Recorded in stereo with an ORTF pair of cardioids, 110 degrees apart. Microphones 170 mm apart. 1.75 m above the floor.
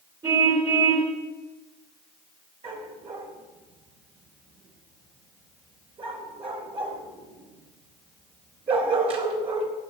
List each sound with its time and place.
0.2 s a car horn: 30° right, 4 m
2.6 s a dog barking: 40° right, 4 m